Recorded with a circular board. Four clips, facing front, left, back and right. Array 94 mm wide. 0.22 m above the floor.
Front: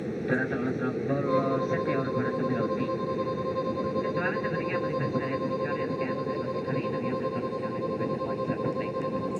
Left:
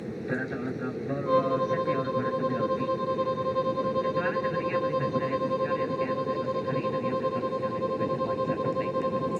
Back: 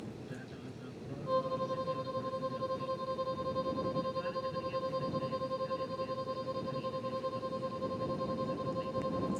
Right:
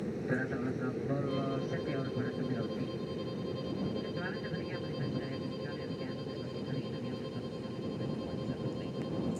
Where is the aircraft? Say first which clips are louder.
Left 3 dB, front 17 dB; 15° left; by 9.4 s 40° left.